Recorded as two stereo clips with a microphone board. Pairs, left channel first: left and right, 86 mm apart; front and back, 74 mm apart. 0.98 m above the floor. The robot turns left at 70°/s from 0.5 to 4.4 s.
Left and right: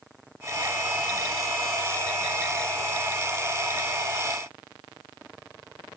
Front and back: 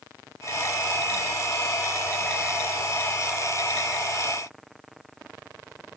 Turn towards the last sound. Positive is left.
No sound to turn to.